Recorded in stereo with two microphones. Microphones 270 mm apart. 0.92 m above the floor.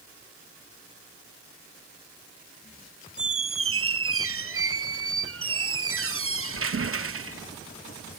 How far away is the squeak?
About 0.6 m.